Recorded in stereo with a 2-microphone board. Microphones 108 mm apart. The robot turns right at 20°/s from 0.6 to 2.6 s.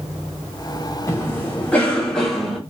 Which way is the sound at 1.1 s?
155° left.